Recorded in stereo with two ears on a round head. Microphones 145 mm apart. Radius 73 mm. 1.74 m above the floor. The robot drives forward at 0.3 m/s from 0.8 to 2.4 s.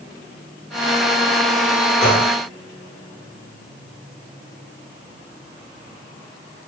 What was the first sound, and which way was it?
A gunshot, 10° left (ahead or behind).